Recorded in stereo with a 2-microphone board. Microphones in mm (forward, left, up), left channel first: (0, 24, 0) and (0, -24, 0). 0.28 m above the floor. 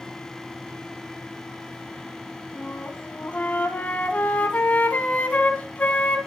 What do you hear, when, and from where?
2.5 s a flute: 30° left (ahead or behind), 1.6 m